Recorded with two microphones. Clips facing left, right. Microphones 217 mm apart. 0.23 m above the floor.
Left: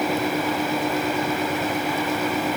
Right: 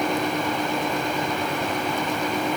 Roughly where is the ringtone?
No ringtone in this recording.